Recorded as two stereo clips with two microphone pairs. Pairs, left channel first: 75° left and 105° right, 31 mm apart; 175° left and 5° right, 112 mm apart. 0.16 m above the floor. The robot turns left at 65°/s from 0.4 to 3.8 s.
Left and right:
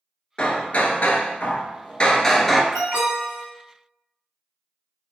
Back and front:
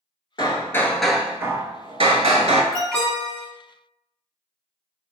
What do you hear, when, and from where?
0.4 s hammering: 130° left, 0.6 m; by 2.6 s 15° right, 0.6 m
2.7 s an alarm: 90° right, 0.9 m; by 3.5 s 135° right, 0.9 m